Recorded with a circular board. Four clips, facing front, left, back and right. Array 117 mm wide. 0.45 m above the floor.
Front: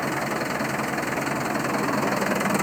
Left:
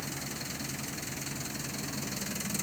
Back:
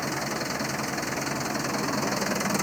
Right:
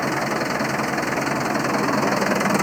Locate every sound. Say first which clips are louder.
0.0 s an engine running: right 18 dB, front 4 dB; 75° right